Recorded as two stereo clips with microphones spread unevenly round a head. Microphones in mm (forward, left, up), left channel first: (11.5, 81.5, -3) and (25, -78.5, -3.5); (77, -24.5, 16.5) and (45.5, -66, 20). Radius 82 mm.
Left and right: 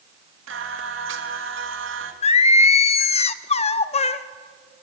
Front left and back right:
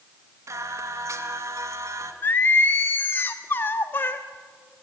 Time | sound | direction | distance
0.5 | singing | 105° right | 2 m
2.2 | singing | 90° left | 0.9 m